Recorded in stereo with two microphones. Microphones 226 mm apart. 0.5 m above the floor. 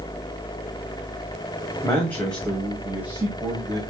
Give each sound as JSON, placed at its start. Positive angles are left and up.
{"t": 1.8, "sound": "a man speaking", "side_deg": 10, "distance_m": 3.0}